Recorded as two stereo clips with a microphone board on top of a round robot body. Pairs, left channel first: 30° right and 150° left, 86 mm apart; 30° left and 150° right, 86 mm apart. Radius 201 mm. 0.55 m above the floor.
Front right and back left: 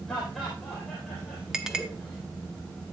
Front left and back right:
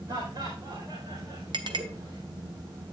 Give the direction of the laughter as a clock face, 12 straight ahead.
4 o'clock.